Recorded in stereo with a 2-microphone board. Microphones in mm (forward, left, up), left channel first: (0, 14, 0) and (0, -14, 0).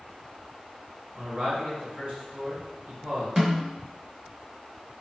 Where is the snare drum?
20° right (ahead or behind), 0.7 m.